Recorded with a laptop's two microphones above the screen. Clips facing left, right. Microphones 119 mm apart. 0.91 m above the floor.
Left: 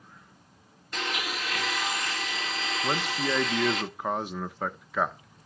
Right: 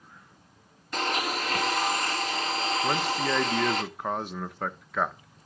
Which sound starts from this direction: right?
A blender, at 0.9 s.